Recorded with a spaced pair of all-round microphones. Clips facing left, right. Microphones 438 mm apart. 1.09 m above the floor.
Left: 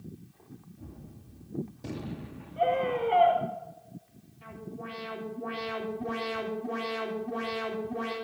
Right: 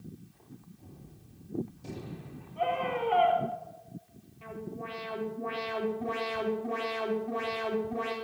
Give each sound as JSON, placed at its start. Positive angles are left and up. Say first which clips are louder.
{"t": 0.8, "sound": "a gunshot", "louder": "left 5 dB", "side_deg": 80, "distance_m": 1.2}
{"t": 2.6, "sound": "a scream", "louder": "left 4 dB", "side_deg": -25, "distance_m": 5.0}
{"t": 4.4, "sound": "an alarm", "louder": "right 2 dB", "side_deg": 30, "distance_m": 4.5}